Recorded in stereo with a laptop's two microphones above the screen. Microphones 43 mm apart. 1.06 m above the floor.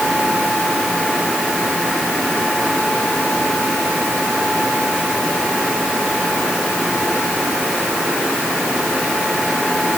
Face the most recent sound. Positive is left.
No sound to turn to.